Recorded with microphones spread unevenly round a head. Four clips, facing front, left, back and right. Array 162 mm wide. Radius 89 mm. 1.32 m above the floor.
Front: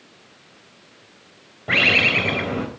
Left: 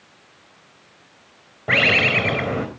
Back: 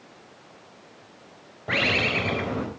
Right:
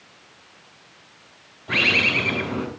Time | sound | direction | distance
1.7 | a bird | 65° left | 3.5 m